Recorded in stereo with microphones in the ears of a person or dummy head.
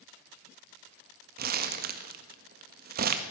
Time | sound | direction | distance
1.4 | crumpling | 50° right (ahead or behind) | 1.5 m